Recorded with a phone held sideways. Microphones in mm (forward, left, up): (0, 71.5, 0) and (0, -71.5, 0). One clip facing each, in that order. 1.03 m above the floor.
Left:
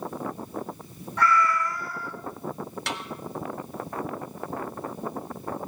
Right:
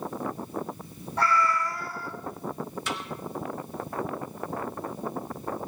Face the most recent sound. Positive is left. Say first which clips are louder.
# even
turn(degrees=75)  # may be behind; listen again after turning